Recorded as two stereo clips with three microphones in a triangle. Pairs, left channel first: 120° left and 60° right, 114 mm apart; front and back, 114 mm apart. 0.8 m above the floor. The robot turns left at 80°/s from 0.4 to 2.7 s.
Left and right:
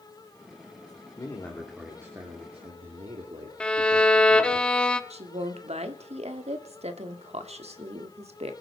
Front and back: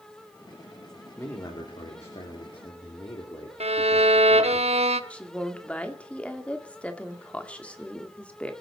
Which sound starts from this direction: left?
A man speaking, at 1.2 s.